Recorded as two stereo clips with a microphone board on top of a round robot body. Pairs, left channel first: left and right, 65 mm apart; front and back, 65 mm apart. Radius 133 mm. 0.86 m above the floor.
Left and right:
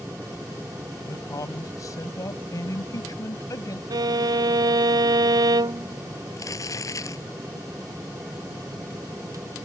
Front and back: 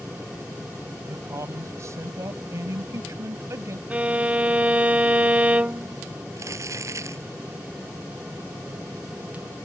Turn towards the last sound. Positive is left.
turn(degrees=130)